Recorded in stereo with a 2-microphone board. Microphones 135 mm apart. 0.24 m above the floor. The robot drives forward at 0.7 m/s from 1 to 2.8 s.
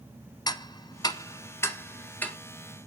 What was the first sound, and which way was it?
Ticking, 30° left (ahead or behind).